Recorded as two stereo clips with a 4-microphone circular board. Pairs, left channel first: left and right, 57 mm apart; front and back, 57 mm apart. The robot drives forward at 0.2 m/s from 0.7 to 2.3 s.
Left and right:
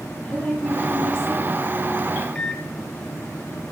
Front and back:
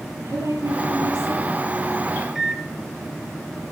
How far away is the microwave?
About 0.7 m.